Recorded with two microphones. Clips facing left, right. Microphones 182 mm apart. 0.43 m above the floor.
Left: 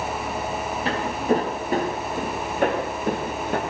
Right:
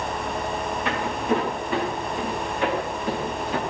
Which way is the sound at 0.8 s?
30° left (ahead or behind).